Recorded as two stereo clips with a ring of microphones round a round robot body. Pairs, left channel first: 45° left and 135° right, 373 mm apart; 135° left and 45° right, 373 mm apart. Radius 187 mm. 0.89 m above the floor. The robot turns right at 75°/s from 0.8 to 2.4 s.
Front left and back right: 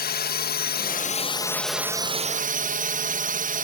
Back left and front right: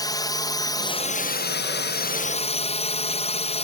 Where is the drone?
65° left; by 3.6 s 175° right.